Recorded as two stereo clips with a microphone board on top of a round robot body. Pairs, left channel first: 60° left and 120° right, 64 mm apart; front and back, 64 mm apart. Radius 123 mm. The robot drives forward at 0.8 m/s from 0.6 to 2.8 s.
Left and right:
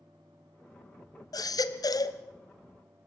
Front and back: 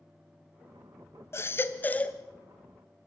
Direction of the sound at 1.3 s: 45° left.